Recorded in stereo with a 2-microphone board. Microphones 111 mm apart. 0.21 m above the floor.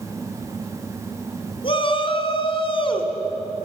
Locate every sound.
1.6 s a shout: 50° left (ahead or behind), 2 m